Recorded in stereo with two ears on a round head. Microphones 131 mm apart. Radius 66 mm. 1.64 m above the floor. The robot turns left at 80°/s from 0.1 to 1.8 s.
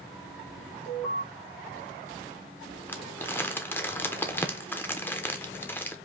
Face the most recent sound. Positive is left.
turn(degrees=15)  # may be behind; listen again after turning